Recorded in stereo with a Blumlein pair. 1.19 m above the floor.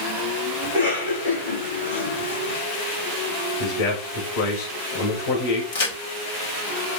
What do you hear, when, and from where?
0.6 s a cough: 65° left, 8 m
3.6 s a man speaking: 50° left, 4.5 m
5.7 s a crack: 55° left, 6 m